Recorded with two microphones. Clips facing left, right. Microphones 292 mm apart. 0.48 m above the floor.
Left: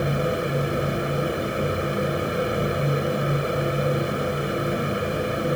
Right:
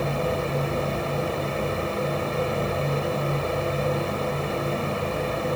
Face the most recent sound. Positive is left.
No sound to turn to.